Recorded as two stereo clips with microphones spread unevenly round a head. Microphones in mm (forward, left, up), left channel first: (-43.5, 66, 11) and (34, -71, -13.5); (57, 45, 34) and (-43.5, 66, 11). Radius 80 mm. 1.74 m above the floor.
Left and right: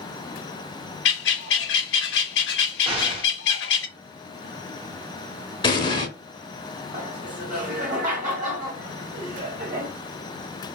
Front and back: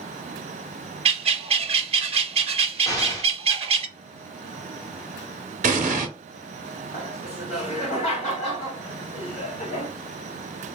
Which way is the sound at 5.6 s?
175° left.